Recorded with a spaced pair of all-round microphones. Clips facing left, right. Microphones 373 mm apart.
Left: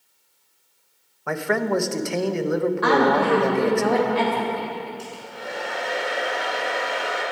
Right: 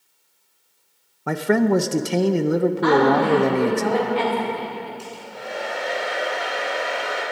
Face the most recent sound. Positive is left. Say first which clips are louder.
# even
turn(degrees=30)  # may be behind; listen again after turning